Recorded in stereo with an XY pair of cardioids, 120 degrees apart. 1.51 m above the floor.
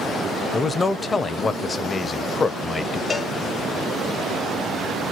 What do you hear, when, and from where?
0.5 s a man speaking: 30° left, 0.6 m
3.1 s a cowbell: 30° left, 0.8 m